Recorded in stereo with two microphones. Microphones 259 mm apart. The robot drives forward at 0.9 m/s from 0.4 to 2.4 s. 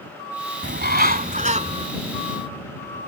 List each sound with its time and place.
0.6 s a bird: 45° right (ahead or behind); by 1.9 s 25° right (ahead or behind)